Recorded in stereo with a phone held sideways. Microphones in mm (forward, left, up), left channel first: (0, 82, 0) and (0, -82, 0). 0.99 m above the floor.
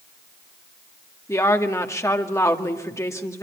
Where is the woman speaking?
15° left (ahead or behind), 1.9 m.